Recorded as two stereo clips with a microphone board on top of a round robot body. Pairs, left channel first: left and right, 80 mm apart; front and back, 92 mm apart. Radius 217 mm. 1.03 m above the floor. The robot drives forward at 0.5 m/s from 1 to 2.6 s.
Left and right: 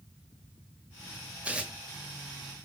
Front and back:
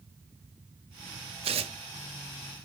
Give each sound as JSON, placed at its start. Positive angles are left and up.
{"t": 1.4, "sound": "tearing paper", "azimuth_deg": -165, "distance_m": 0.6}